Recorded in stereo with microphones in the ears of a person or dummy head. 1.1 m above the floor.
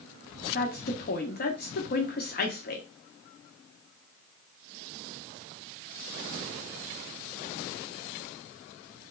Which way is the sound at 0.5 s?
45° left (ahead or behind).